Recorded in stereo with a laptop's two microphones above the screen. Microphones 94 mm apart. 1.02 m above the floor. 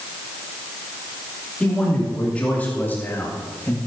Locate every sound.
1.6 s a man speaking: 10° left (ahead or behind), 3 m; by 3.8 s 35° left (ahead or behind), 1.7 m